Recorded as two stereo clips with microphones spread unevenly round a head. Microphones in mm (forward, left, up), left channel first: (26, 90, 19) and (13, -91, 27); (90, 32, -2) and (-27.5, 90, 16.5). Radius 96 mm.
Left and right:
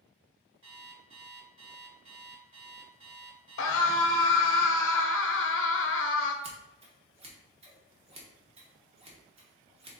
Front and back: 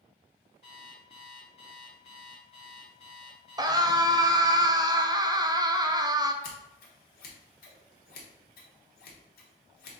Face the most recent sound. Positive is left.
turn(degrees=-35)